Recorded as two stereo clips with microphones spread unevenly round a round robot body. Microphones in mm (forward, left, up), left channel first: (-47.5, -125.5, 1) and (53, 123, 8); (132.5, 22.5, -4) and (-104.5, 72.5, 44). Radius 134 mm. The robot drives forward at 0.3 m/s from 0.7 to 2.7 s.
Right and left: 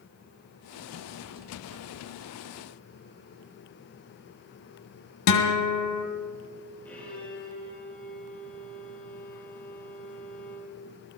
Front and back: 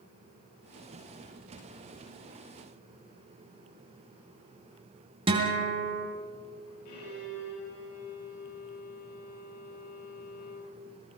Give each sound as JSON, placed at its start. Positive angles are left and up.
{"t": 5.3, "sound": "a guitar", "azimuth_deg": -120, "distance_m": 3.0}
{"t": 6.8, "sound": "a violin", "azimuth_deg": -25, "distance_m": 7.0}